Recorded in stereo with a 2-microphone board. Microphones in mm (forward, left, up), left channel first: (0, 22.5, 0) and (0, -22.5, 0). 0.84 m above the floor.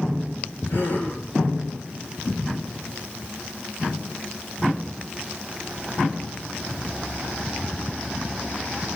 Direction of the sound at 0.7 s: 55° left (ahead or behind).